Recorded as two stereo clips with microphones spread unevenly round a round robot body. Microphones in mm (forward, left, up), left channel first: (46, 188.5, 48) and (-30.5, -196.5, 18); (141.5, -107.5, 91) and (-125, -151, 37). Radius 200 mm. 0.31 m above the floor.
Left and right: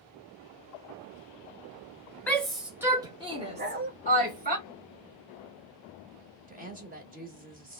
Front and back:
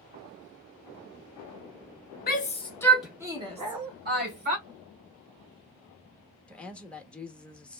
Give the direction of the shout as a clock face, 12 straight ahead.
12 o'clock.